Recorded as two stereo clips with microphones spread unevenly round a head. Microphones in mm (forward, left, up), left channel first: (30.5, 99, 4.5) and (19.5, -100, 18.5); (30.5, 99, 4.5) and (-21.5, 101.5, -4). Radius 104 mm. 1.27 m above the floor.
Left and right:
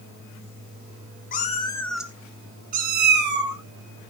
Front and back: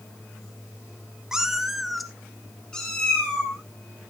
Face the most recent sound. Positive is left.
turn(degrees=-75)